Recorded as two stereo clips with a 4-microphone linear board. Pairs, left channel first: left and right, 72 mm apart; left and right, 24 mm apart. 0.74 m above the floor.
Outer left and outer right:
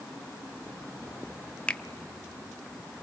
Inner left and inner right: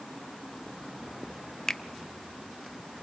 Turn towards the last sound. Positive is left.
turn(degrees=15)  # may be behind; listen again after turning